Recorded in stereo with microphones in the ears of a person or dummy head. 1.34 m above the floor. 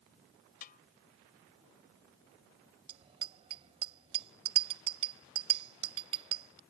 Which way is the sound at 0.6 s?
45° left (ahead or behind).